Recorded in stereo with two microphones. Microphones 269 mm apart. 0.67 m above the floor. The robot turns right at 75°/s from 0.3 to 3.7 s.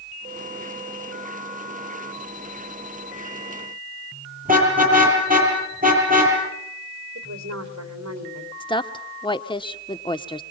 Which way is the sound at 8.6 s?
15° left (ahead or behind).